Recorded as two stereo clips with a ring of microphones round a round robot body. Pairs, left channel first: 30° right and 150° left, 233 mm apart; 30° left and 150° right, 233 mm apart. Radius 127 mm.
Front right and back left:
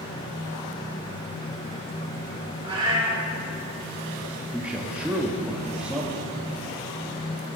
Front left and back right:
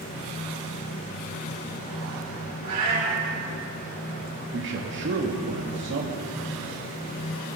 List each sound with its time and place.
2.6 s a cat meowing: 140° right, 5.5 m
4.5 s a man speaking: 125° right, 1.4 m